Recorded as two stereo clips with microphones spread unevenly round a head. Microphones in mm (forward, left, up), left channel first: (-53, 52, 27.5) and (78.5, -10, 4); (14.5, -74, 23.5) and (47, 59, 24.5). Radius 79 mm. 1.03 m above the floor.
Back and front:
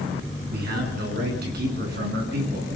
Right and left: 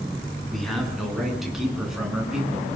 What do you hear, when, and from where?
0.5 s a man speaking: 15° right, 9 m; by 2.7 s 10° right, 9.5 m